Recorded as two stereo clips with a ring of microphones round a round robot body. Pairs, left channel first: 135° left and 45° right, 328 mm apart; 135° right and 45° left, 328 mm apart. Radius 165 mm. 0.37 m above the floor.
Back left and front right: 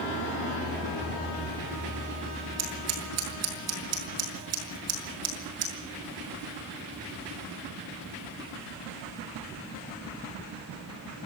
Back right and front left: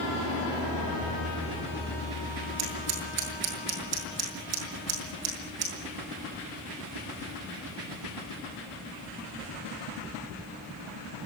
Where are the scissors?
Straight ahead, 6.5 m.